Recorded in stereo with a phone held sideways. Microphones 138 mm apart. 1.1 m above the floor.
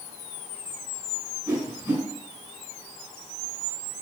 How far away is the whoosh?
About 4 m.